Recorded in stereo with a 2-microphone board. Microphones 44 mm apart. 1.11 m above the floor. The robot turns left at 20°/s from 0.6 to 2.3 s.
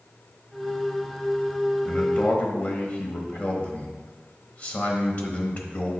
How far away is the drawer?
No drawer in this recording.